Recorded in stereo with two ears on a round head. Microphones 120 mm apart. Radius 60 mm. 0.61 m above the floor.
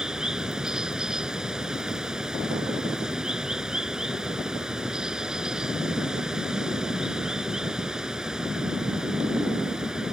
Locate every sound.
0.0 s running water: 5° right (ahead or behind)